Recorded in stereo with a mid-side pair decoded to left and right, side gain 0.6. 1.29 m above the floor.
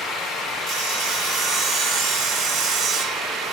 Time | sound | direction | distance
0.7 | sawing | 60° right | 4 m